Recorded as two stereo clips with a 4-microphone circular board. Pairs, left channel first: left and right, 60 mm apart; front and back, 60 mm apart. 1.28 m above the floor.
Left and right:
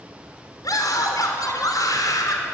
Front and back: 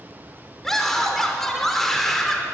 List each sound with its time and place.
0.6 s a scream: 85° left, 4 m